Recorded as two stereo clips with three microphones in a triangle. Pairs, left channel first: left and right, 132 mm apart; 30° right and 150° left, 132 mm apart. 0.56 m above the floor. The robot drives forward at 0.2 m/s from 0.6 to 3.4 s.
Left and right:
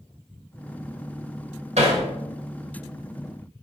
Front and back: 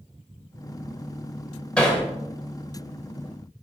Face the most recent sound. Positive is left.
turn(degrees=-120)